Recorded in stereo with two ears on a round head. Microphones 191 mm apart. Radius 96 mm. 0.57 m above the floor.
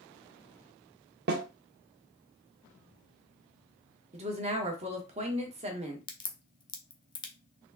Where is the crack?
20° left (ahead or behind), 0.7 m.